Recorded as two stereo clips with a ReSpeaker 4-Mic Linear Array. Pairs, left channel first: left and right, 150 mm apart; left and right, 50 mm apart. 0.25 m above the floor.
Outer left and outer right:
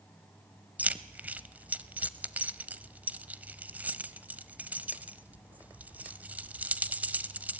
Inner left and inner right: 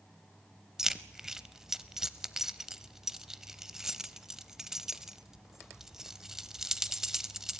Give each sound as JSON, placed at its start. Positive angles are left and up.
{"t": 0.8, "sound": "keys jangling", "side_deg": -10, "distance_m": 0.7}